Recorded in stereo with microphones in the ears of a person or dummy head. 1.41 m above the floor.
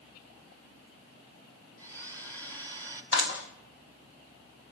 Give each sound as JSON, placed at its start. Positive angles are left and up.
{"t": 1.8, "sound": "a blender", "side_deg": 15, "distance_m": 3.0}
{"t": 3.1, "sound": "a clap", "side_deg": 70, "distance_m": 5.0}